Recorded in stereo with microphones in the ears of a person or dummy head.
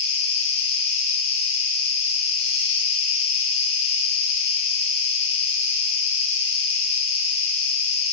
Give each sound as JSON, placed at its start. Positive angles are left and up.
{"t": 0.0, "sound": "an insect", "side_deg": 35, "distance_m": 2.5}